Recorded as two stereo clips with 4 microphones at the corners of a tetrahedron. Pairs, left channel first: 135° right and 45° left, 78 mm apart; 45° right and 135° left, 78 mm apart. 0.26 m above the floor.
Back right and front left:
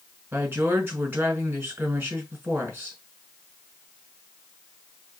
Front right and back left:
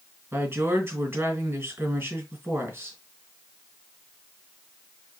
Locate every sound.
0.3 s a woman speaking: 95° left, 2 m